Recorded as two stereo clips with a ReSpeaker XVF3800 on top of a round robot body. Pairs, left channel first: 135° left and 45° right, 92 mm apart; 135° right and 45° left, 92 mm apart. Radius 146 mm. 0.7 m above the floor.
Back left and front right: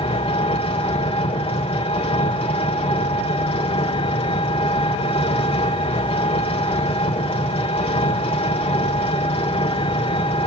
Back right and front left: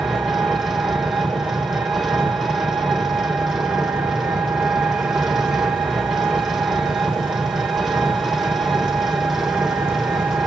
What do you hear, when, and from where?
0.0 s an engine running: 130° left, 2.5 m